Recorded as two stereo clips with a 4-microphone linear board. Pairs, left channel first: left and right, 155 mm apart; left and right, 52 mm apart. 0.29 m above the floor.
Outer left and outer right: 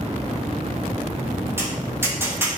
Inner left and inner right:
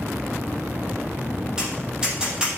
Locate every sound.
1.6 s tapping: 15° right (ahead or behind), 4.5 m